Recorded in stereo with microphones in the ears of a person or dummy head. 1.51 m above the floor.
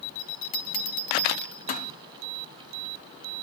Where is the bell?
40° left (ahead or behind), 0.6 m.